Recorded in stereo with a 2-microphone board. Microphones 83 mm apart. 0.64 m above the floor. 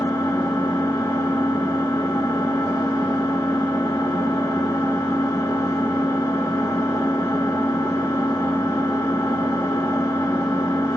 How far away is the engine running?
About 7 m.